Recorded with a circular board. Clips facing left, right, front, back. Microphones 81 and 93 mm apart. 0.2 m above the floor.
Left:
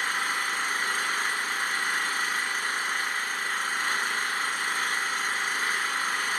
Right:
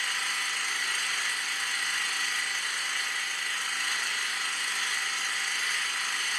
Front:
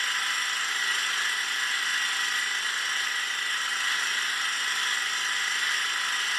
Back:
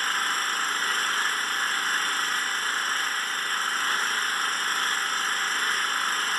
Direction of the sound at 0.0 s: 135° left.